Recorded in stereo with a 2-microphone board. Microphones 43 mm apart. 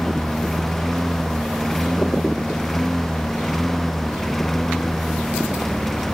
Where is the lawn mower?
5° left (ahead or behind).